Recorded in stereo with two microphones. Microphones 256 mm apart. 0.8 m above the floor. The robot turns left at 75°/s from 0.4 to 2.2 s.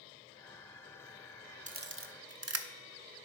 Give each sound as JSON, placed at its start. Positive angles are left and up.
{"t": 1.7, "sound": "a camera shutter", "side_deg": -30, "distance_m": 0.6}